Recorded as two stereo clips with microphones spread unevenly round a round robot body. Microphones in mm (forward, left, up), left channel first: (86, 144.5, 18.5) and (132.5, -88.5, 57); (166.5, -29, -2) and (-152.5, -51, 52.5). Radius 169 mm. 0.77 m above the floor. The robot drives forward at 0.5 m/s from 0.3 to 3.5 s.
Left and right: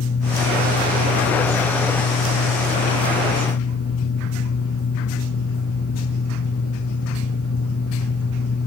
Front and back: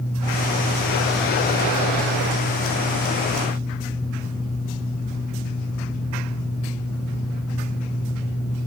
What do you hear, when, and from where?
Only background noise.